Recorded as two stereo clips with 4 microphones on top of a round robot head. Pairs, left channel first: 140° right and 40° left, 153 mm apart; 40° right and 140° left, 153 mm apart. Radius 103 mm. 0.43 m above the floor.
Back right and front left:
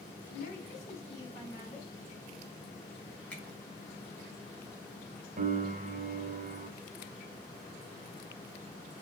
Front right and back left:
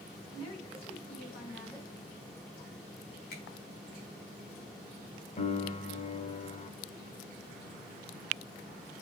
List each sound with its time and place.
0.3 s a woman speaking: 100° right, 4 m; by 1.9 s 85° right, 4 m
3.3 s a finger snap: 60° right, 4.5 m
5.4 s a piano: 5° left, 1.5 m